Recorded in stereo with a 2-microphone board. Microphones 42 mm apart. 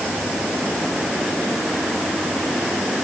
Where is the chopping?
I don't hear chopping.